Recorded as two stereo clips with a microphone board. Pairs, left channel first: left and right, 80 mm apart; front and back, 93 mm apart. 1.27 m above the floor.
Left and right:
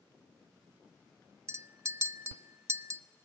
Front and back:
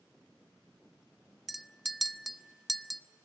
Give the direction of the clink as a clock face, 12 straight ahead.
3 o'clock.